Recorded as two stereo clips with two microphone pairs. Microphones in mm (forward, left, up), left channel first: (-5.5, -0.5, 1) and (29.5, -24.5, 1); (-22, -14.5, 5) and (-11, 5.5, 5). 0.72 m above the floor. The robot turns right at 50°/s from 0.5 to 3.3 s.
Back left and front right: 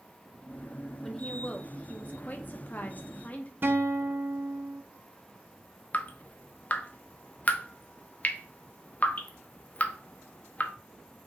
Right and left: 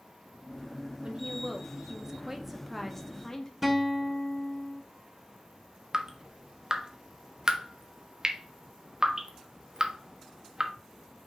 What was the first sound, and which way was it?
A woman speaking, 65° left.